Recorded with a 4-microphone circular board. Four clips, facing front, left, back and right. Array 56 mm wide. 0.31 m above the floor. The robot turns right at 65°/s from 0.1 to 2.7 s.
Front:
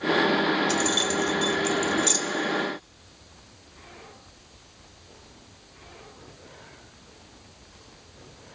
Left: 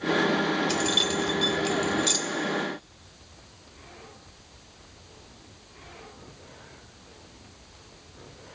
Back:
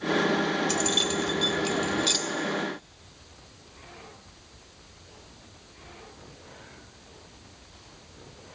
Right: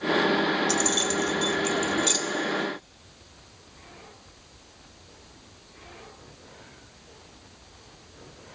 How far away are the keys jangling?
About 0.6 m.